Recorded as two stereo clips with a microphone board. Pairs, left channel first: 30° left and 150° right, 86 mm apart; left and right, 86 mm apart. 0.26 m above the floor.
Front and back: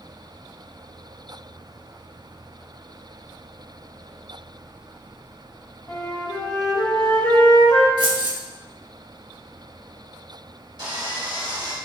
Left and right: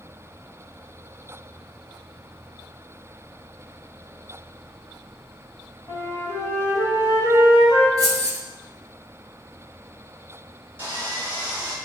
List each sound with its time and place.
5.9 s a flute: 65° left, 1.4 m
8.0 s keys jangling: 135° right, 1.6 m
10.8 s sawing: 155° right, 1.7 m